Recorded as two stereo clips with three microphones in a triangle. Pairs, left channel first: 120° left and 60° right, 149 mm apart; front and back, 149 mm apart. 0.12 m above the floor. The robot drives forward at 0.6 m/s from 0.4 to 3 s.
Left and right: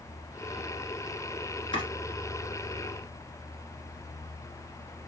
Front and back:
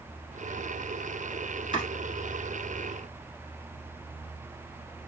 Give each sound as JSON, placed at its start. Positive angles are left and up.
{"t": 1.7, "sound": "chopping", "azimuth_deg": 145, "distance_m": 1.8}